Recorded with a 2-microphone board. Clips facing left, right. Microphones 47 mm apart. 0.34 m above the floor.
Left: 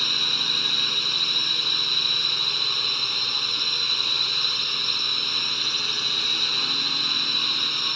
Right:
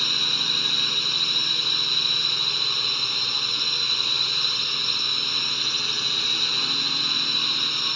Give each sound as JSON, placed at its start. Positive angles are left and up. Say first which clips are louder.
{"t": 0.0, "sound": "a drone", "louder": "even", "side_deg": 0}